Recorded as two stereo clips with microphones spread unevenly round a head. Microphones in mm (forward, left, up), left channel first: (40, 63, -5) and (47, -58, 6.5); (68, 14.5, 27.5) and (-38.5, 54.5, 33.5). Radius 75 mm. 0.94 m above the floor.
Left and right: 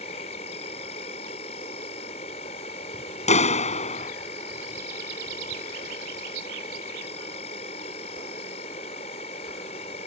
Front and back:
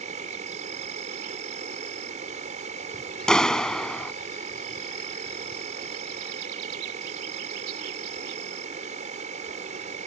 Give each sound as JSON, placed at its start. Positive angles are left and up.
{"t": 0.0, "sound": "an insect", "azimuth_deg": 140}
{"t": 3.3, "sound": "a clap", "azimuth_deg": 65}